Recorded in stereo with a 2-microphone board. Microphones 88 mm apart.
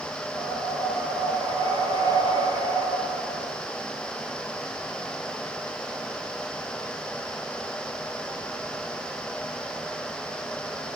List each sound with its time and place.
0.3 s breathing: 45° right (ahead or behind), 6.5 m